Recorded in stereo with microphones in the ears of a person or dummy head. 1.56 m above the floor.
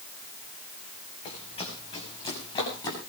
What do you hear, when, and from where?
1.2 s running footsteps: 35° left (ahead or behind), 6 m; by 3.0 s 25° left (ahead or behind), 8 m